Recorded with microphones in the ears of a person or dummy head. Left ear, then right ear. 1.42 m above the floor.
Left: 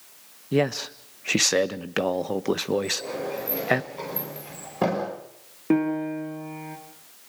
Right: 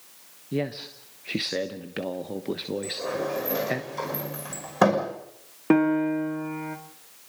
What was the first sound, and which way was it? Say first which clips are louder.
A man speaking: left 6 dB; 45° left (ahead or behind).